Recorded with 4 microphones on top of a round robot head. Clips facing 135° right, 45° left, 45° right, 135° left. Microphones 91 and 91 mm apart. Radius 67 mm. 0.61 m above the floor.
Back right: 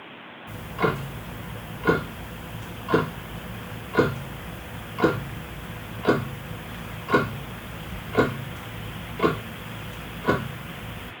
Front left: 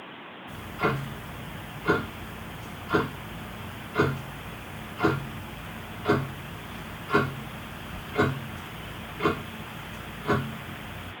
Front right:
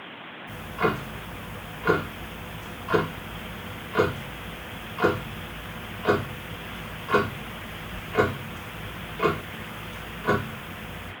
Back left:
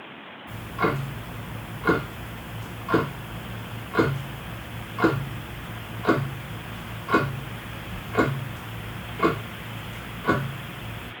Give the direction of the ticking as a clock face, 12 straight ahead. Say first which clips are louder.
Back right 3 dB, even; 5 o'clock.